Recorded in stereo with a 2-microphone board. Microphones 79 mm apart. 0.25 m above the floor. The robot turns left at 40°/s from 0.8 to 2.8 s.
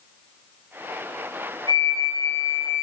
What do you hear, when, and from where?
1.7 s a flute: 65° left, 3.5 m; by 2.8 s 20° left, 3.5 m